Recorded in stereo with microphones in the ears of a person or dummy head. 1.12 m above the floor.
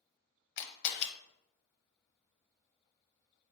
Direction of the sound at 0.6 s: 60° left (ahead or behind).